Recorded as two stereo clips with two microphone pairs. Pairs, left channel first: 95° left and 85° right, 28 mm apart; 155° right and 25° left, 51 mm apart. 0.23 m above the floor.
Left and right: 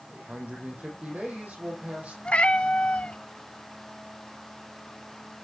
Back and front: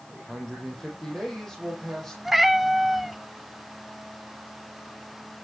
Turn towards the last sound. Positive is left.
turn(degrees=110)